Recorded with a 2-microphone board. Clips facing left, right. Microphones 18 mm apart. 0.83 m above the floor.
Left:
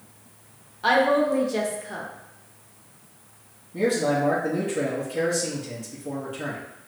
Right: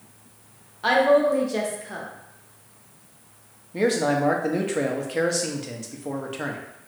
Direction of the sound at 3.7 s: 45° right (ahead or behind).